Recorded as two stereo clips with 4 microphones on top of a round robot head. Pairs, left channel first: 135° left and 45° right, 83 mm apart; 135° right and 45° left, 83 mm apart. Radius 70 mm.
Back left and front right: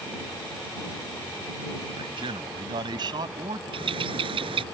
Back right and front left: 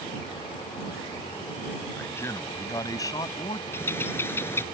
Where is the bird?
70° right.